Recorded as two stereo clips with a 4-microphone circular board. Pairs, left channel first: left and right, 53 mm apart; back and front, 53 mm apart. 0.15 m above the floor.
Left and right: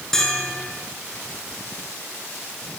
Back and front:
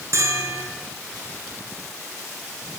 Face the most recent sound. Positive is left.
turn(degrees=10)